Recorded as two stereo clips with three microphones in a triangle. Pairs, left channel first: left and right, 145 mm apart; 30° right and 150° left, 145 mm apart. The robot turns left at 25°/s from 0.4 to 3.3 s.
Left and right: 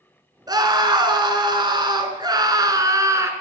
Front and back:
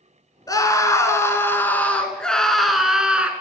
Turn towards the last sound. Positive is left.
turn(degrees=-135)